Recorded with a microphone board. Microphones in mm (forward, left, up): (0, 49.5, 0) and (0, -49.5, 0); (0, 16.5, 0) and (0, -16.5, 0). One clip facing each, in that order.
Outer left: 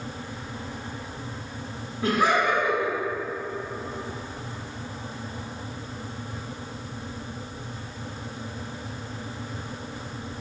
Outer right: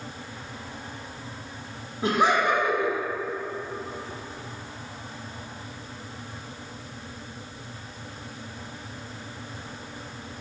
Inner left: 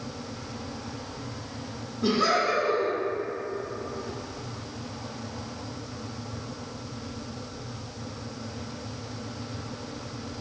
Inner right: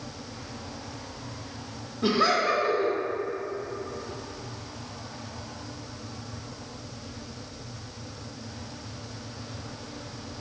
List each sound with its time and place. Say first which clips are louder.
2.0 s laughter: even, inner right 1 dB; 20° right (ahead or behind), 0.9 m